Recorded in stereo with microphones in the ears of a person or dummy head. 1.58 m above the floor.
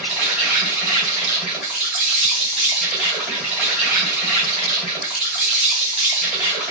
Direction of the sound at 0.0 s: Centre (ahead or behind).